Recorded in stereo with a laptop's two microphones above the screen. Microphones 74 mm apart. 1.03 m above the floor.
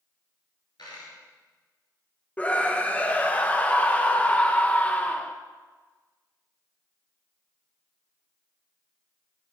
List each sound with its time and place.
0.8 s a dropped coin: 70° left (ahead or behind), 2.5 m
2.4 s a scream: 20° left (ahead or behind), 0.5 m